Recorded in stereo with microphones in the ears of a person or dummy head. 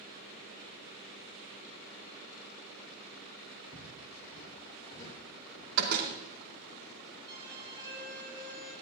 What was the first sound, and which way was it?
Footsteps, 25° left (ahead or behind).